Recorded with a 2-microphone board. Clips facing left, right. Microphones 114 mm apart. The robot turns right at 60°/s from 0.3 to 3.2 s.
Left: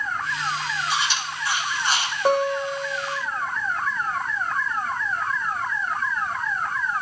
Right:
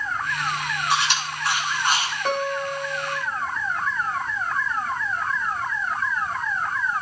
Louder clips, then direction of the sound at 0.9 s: Right 6 dB; 65° right (ahead or behind).